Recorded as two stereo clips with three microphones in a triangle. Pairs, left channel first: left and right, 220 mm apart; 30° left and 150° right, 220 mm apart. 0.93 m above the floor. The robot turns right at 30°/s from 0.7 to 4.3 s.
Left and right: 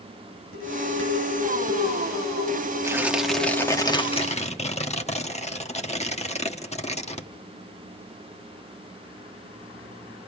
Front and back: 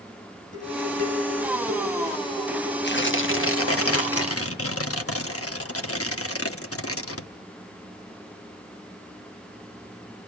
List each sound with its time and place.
0.5 s dishes clattering: 65° left, 9 m; by 3.8 s 160° left, 9 m
2.8 s tearing paper: 15° right, 1.0 m; by 7.3 s 30° left, 1.0 m